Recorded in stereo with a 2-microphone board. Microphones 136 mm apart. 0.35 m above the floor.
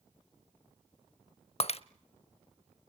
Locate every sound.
1.6 s breaking glass: 50° left (ahead or behind), 0.6 m